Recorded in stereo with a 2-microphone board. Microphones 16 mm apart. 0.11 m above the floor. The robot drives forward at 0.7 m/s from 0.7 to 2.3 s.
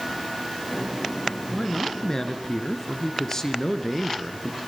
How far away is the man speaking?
About 1.5 m.